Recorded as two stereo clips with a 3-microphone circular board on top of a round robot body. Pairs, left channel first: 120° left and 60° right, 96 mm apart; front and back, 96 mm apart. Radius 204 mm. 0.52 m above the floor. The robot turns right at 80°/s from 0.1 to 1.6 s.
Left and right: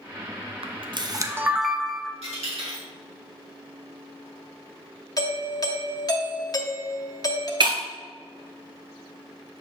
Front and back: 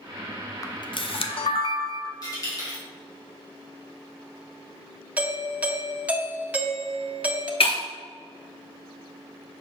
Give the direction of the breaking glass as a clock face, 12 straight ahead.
1 o'clock.